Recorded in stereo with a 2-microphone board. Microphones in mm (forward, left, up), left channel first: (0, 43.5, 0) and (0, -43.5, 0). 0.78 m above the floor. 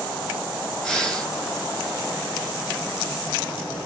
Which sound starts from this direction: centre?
Breathing, at 0.8 s.